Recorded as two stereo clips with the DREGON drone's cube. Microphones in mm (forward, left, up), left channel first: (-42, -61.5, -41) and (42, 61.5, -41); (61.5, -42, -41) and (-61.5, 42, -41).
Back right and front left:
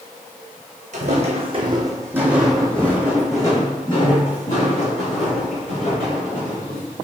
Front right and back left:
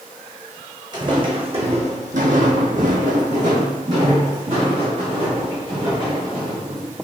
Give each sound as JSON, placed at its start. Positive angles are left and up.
{"t": 0.9, "sound": "footsteps", "azimuth_deg": 90, "distance_m": 1.1}